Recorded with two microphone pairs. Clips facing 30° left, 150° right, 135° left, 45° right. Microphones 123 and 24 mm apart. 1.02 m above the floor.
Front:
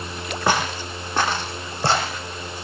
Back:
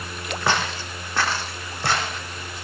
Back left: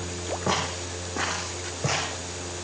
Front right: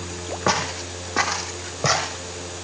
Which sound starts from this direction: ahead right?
Footsteps, at 0.5 s.